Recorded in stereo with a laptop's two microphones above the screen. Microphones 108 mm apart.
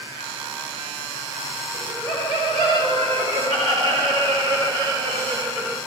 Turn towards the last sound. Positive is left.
turn(degrees=-40)  # may be behind; listen again after turning